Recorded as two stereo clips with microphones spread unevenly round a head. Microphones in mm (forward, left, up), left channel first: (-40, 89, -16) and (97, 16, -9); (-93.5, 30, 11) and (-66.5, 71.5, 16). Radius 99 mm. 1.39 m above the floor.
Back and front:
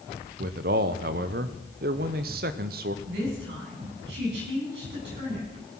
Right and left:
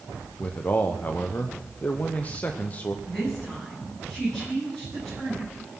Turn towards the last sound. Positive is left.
turn(degrees=-35)